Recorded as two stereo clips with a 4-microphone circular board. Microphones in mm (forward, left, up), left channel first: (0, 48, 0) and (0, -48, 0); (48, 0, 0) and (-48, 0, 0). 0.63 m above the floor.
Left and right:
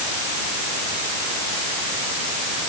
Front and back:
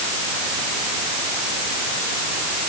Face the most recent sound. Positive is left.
No sound to turn to.